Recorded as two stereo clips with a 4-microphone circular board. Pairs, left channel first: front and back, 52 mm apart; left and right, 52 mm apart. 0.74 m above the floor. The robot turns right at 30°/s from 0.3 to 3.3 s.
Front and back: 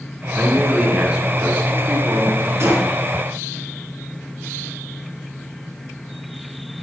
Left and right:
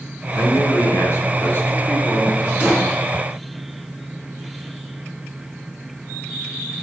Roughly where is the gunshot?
Behind.